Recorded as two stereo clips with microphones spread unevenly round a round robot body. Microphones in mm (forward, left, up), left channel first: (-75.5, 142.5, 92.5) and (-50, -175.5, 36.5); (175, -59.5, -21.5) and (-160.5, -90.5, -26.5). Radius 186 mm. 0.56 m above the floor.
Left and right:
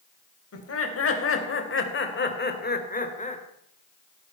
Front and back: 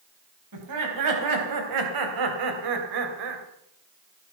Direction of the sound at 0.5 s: 140° left.